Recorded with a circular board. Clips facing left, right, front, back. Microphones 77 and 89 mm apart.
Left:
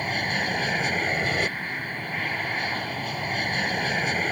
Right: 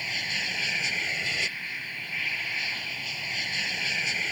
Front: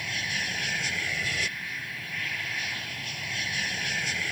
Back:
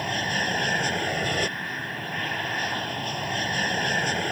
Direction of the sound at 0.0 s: 135° left.